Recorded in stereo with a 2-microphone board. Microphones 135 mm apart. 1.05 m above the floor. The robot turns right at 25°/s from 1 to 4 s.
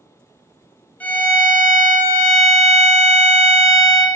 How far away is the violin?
About 0.6 m.